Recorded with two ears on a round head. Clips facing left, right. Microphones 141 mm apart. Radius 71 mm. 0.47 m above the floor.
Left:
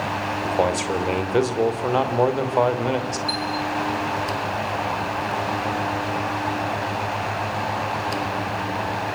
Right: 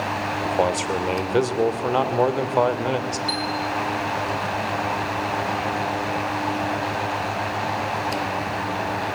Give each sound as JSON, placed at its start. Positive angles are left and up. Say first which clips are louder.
{"t": 0.4, "sound": "a man speaking", "louder": "even", "side_deg": 0, "distance_m": 2.0}
{"t": 3.3, "sound": "a chime", "louder": "even", "side_deg": -25, "distance_m": 3.0}